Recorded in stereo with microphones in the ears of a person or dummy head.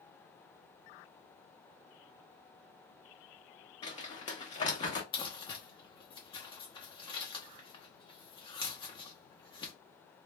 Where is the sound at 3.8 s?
25° left (ahead or behind), 0.8 m.